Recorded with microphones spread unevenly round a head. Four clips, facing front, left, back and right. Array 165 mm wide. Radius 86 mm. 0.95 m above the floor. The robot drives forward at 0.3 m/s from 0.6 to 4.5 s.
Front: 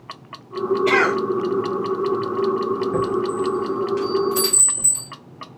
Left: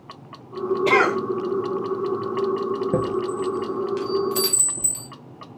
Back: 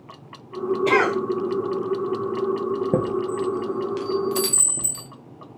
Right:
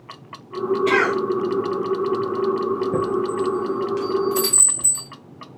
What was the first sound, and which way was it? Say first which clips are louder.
A cough: left 2 dB, even; 115° left.